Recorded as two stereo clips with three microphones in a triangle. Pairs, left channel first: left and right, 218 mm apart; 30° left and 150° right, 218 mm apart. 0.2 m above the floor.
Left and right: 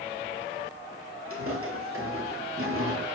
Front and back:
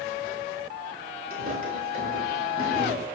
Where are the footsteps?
105° right, 7 m.